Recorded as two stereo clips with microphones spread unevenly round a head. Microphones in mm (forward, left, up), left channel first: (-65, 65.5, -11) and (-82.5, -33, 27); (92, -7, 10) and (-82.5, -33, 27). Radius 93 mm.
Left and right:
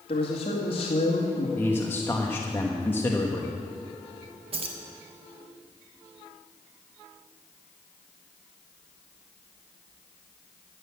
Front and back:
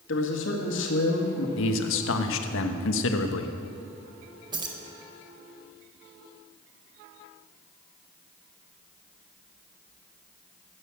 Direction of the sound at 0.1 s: 30° left.